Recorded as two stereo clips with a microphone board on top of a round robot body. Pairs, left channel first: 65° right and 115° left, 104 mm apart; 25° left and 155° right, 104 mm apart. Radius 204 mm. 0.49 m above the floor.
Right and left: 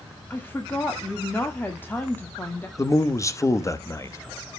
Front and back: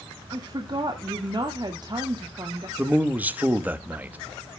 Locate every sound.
0.3 s a woman speaking: 130° right, 1.5 m
2.8 s a man speaking: 95° right, 1.2 m